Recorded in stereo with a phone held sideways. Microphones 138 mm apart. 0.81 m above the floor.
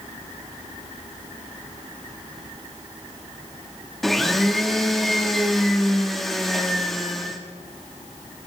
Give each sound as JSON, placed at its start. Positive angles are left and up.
{"t": 4.0, "sound": "a blender", "side_deg": 0, "distance_m": 1.5}